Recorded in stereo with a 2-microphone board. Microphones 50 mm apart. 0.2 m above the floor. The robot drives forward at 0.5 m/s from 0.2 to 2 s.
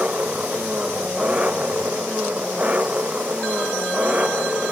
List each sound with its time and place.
0.0 s an engine running: 25° right (ahead or behind)